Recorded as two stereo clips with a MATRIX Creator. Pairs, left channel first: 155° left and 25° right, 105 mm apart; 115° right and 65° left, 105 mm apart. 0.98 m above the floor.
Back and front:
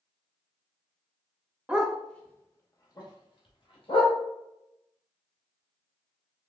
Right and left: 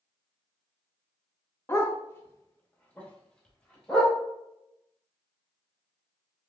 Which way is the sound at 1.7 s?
90° right.